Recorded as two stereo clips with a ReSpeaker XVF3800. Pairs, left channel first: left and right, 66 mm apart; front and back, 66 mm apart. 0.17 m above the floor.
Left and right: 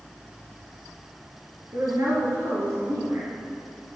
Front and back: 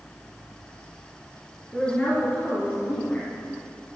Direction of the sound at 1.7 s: 65° right.